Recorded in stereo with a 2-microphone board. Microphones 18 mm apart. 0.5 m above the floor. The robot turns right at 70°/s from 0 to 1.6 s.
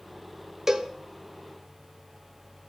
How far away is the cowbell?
About 0.7 m.